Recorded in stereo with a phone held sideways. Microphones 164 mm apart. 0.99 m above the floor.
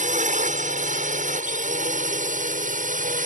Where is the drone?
50° right (ahead or behind).